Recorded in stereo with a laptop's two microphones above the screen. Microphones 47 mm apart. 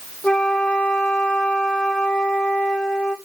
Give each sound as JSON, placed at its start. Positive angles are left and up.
{"t": 0.2, "sound": "a flute", "side_deg": 20, "distance_m": 1.3}